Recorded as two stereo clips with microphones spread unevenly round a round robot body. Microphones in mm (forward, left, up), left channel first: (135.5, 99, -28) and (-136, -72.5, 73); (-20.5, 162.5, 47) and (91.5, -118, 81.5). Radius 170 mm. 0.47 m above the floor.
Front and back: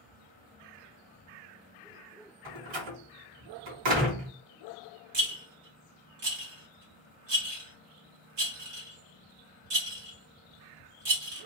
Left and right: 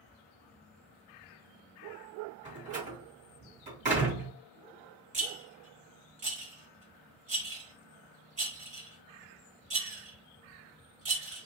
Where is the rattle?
135° right, 1.8 m.